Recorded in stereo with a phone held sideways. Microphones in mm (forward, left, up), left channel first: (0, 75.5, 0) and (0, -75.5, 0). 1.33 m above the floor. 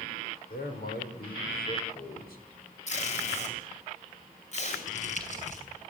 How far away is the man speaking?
About 5.5 m.